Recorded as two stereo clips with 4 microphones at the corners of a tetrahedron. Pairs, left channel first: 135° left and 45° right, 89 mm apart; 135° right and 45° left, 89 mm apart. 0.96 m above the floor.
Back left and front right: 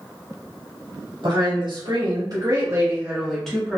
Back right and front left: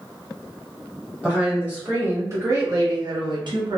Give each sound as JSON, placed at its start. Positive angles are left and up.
{"t": 1.2, "sound": "a woman speaking", "azimuth_deg": -35, "distance_m": 1.4}